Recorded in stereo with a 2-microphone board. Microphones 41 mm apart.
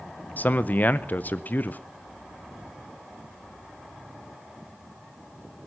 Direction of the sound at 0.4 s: 45° left (ahead or behind).